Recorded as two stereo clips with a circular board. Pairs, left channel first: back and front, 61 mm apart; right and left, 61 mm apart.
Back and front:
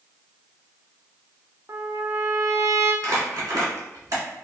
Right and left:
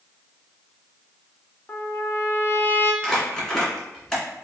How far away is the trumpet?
About 0.6 m.